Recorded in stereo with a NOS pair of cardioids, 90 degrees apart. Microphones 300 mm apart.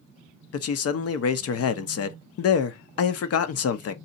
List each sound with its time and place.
0.5 s a man speaking: 55° left, 0.6 m